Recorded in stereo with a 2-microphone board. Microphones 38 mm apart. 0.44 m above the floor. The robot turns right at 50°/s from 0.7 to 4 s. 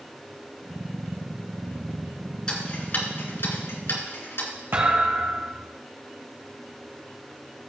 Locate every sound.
2.5 s ticking: 20° left (ahead or behind), 3 m; by 4.5 s 80° left, 3 m
4.7 s a thud: 65° right (ahead or behind), 3.5 m